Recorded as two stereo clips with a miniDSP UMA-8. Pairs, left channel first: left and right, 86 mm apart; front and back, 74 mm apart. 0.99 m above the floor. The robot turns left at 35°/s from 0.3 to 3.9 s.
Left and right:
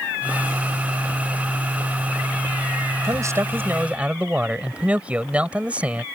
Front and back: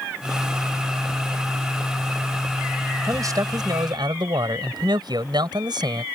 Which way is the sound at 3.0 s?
135° right.